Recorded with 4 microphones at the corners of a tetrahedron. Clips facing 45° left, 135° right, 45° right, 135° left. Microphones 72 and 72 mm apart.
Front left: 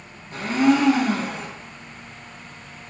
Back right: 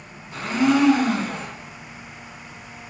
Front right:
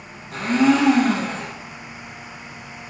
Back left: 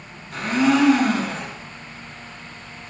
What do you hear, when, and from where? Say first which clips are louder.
0.3 s a blender: front left 1 dB, front right 1 dB; straight ahead, 1.5 m